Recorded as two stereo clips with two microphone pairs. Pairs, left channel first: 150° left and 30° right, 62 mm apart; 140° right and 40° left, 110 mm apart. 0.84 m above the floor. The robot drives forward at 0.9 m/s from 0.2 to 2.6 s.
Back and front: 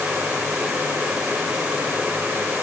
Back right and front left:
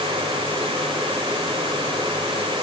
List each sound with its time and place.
Only background noise.